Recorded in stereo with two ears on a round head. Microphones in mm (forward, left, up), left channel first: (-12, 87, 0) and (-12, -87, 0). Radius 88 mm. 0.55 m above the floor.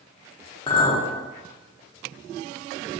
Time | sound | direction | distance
0.7 | a clink | 25° left (ahead or behind) | 0.6 m